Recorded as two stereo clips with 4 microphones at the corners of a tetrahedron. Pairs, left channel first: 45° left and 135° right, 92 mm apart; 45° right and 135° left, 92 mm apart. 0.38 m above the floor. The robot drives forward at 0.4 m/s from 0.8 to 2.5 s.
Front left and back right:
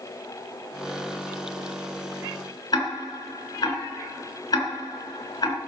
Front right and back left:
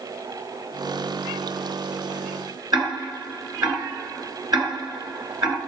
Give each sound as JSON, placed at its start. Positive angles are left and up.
{"t": 2.7, "sound": "ticking", "azimuth_deg": 90, "distance_m": 3.5}